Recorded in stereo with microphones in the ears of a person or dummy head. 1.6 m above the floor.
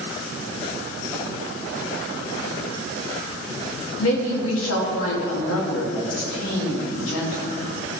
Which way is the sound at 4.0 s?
80° left.